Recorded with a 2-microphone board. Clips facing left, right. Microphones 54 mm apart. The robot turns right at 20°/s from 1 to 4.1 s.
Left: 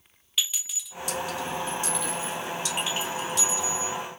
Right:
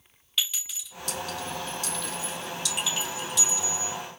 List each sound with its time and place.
0.4 s a clink: 10° left (ahead or behind), 2.5 m; by 4.0 s 65° left (ahead or behind), 2.5 m